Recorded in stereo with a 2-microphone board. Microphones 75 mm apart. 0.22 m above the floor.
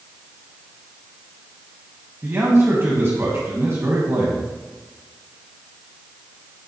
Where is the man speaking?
35° right (ahead or behind), 1.3 m.